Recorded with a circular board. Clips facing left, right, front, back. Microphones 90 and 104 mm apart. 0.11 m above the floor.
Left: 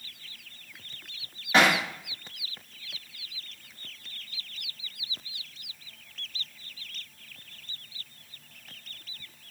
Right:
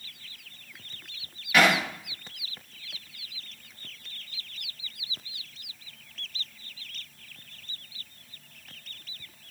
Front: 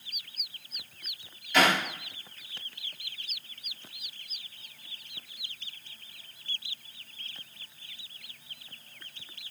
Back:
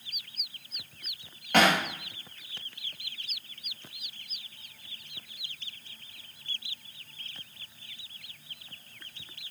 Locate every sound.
1.5 s hammering: 150° left, 10 m